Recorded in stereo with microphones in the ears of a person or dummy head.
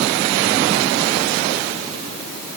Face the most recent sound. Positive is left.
No sound to turn to.